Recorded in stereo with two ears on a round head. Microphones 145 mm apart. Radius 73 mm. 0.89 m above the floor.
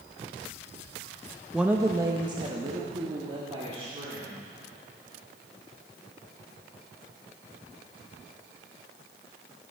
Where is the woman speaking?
Centre (ahead or behind), 0.5 m; by 4.4 s 35° right (ahead or behind), 2.5 m.